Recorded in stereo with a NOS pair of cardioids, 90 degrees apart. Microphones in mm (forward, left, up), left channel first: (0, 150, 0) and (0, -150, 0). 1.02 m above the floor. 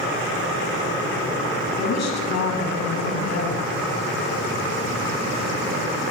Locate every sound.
1.8 s a woman speaking: 60° left, 8 m